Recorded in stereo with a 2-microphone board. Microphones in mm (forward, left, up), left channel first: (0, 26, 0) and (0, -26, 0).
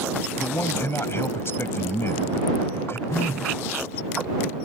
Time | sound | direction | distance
0.4 | a man speaking | 50° left (ahead or behind) | ?
3.1 | a phone buzzing | 65° left (ahead or behind) | ?